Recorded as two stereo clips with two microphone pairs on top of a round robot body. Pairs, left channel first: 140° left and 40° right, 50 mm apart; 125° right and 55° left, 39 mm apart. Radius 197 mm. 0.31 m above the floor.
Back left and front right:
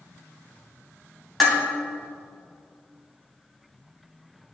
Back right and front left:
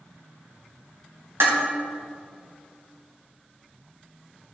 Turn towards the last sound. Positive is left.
turn(degrees=55)